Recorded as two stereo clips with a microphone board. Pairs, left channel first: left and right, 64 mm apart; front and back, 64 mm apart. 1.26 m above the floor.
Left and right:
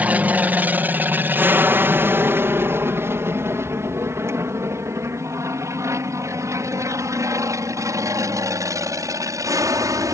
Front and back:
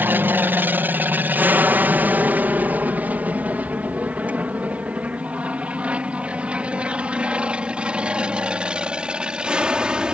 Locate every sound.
0.0 s an aircraft: 140° right; by 10.1 s 105° right